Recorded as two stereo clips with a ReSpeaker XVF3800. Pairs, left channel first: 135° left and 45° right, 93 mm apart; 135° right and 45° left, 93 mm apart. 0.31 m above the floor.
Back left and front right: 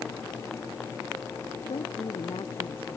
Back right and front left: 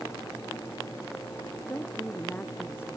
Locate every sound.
1.7 s a woman speaking: 150° left; by 3.0 s 155° left